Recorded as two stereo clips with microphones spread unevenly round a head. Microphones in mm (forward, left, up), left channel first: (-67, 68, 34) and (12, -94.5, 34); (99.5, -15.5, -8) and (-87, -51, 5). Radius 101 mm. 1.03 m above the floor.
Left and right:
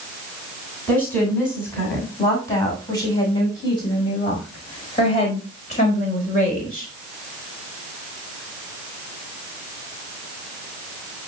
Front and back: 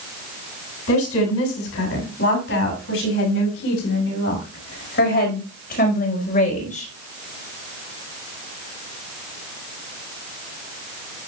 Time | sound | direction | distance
0.9 | a woman speaking | 35° left | 7.5 m